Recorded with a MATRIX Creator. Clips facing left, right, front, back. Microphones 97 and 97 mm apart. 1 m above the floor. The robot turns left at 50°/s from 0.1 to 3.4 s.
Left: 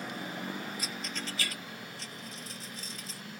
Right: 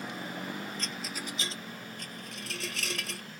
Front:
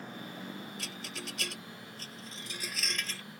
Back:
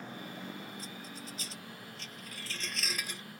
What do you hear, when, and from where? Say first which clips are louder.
0.8 s a rattle: even, front 2 dB; 10° left; by 3.2 s 110° right